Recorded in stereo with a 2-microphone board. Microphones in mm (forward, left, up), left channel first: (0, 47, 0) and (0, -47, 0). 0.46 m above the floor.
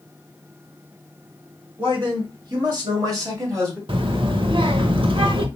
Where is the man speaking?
65° right (ahead or behind), 1.9 m; by 3.8 s 30° right (ahead or behind), 1.7 m.